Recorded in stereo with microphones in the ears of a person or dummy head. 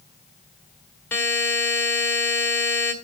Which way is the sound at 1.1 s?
10° left (ahead or behind).